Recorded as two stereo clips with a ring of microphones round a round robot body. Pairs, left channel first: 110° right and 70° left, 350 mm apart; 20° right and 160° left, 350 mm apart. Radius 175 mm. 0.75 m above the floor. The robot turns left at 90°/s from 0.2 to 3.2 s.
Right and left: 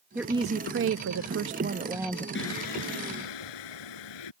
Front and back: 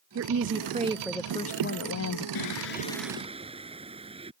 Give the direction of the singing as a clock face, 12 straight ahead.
2 o'clock.